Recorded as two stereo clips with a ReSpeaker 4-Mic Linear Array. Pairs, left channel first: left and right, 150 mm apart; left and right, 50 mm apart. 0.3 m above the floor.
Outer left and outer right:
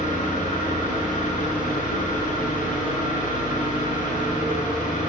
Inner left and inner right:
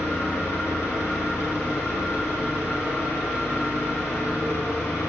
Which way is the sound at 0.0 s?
55° left (ahead or behind).